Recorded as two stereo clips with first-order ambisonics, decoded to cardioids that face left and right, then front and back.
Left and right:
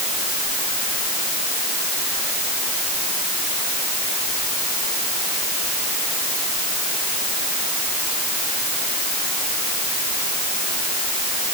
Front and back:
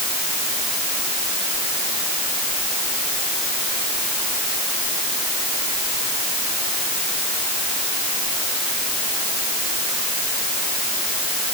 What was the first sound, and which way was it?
Only background noise.